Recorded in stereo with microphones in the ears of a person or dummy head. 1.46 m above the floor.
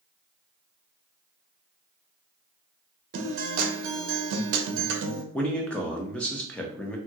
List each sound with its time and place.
3.1 s a guitar: 50° right (ahead or behind), 0.6 m
5.3 s a man speaking: 10° left (ahead or behind), 0.7 m